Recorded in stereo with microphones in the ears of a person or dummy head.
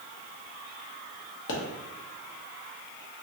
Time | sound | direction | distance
1.5 | a pop | 70° left (ahead or behind) | 0.9 m